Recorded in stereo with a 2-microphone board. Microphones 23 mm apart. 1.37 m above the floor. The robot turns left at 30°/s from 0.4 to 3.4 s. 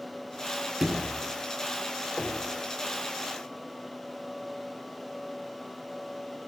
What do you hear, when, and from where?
0.8 s a sliding door: 25° right (ahead or behind), 9 m; by 1.2 s 10° right (ahead or behind), 9 m
2.2 s knocking: 55° left (ahead or behind), 5 m; by 2.5 s 45° left (ahead or behind), 5 m